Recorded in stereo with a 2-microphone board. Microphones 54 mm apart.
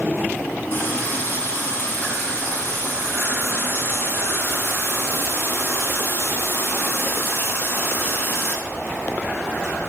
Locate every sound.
0.7 s a running tap: 40° left (ahead or behind), 1.6 m